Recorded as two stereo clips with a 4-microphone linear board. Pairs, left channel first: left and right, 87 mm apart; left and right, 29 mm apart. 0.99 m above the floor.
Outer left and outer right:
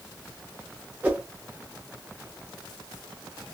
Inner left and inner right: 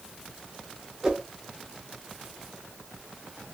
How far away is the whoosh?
About 0.8 m.